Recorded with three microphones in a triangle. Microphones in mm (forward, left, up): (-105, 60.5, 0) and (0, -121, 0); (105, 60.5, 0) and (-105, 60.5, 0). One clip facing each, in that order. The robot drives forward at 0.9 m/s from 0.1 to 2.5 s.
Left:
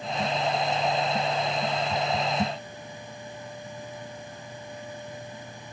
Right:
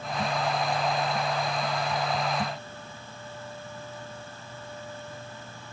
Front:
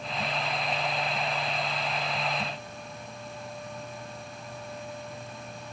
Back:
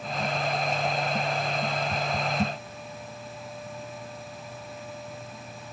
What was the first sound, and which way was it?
Only background noise.